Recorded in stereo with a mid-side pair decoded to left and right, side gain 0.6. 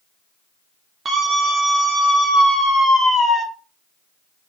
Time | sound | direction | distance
1.1 | a scream | 30° right | 0.7 m